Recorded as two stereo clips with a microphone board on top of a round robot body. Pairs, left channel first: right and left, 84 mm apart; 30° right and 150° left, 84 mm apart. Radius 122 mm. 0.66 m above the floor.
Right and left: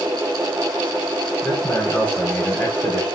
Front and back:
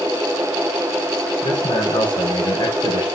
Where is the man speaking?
20° right, 3.5 m.